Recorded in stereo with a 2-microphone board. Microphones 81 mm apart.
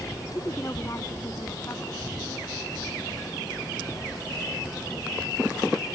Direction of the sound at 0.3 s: 35° left (ahead or behind).